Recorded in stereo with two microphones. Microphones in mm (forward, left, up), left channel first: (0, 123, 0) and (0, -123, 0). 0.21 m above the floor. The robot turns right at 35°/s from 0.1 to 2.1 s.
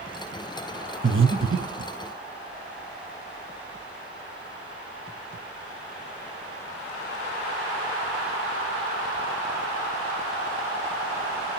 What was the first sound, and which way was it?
Breathing, 50° right (ahead or behind).